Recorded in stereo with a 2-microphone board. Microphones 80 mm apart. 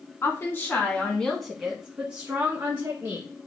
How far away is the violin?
No violin in this recording.